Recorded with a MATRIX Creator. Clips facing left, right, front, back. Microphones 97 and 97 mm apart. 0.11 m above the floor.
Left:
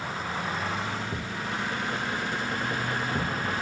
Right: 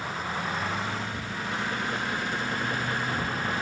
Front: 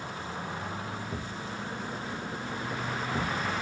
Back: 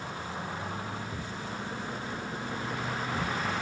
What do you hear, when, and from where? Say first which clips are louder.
1.1 s a thud: even, front 1 dB; 70° left, 3 m